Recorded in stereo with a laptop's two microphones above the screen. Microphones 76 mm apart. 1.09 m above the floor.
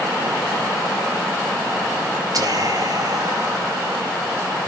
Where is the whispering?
55° right (ahead or behind), 2.5 m.